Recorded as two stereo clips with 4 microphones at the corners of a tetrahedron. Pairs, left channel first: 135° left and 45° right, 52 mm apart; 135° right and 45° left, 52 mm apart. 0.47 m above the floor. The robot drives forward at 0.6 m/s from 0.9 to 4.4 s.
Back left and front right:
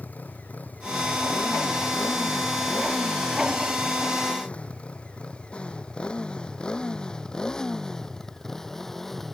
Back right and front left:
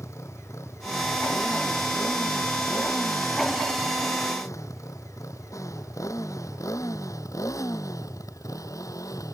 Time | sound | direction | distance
0.0 | a motorcycle | 165° right | ?